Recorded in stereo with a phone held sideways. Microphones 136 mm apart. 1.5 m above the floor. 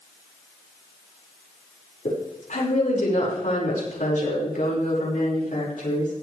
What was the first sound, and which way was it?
A woman speaking, 90° left.